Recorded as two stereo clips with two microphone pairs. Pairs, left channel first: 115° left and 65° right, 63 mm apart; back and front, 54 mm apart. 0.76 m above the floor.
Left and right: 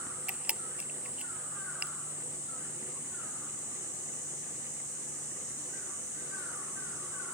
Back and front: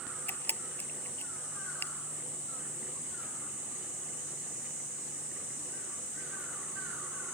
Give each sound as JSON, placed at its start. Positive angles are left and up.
{"t": 0.3, "sound": "a camera shutter", "azimuth_deg": -135}